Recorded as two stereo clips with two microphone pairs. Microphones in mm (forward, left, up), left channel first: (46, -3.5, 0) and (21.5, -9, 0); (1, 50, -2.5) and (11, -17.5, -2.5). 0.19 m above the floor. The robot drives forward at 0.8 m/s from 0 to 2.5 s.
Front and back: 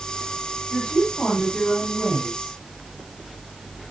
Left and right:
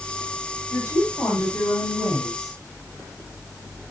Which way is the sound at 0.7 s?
55° left.